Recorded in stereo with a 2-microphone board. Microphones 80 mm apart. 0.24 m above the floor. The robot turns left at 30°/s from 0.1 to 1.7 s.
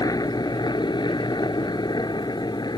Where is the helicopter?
120° left; by 2.8 s 75° left.